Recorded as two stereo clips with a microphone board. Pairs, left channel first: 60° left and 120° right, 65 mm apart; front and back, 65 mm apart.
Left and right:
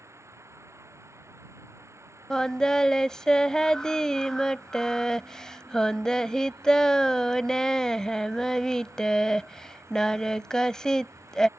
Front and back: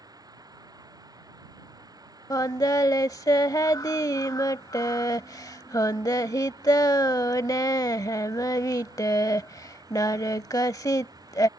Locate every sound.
0.0 s an insect: 165° right
2.3 s singing: 20° right